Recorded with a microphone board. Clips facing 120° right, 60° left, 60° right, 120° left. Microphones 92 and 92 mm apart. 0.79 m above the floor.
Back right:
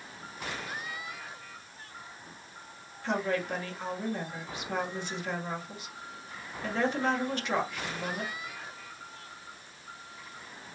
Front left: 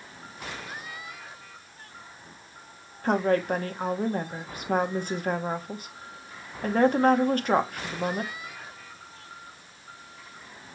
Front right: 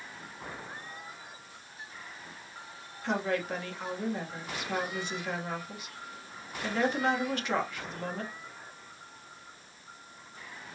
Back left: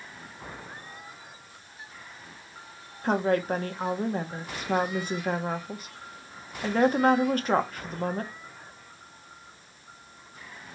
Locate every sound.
3.0 s a woman speaking: 85° left, 1.0 m